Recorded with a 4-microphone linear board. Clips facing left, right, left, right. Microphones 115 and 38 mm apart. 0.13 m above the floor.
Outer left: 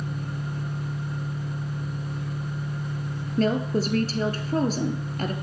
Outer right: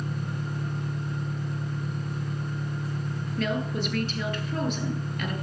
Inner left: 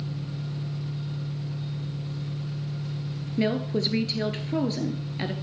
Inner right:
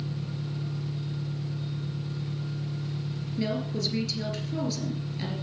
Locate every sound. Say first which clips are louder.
0.0 s an engine running: even, even; 5° right (ahead or behind), 8 m
3.4 s a woman speaking: outer left 6 dB, inner left 5 dB; 35° left (ahead or behind), 1.8 m